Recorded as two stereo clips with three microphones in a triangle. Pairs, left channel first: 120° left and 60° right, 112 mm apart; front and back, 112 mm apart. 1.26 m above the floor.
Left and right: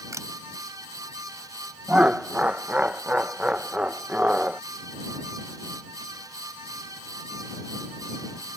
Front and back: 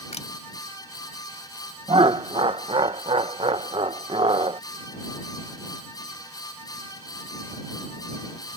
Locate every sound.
0.1 s a camera shutter: straight ahead
1.9 s laughter: 140° right